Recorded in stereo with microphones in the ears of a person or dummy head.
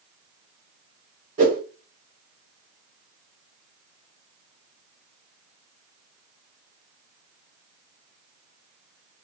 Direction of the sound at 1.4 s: 40° right (ahead or behind).